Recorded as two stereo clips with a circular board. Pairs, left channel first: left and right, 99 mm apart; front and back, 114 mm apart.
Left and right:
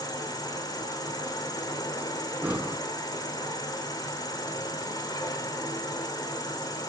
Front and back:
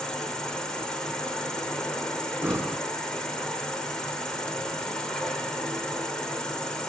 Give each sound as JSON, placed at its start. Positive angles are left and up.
{"t": 0.0, "sound": "an insect", "azimuth_deg": 80, "distance_m": 1.8}
{"t": 2.4, "sound": "breathing", "azimuth_deg": -135, "distance_m": 0.7}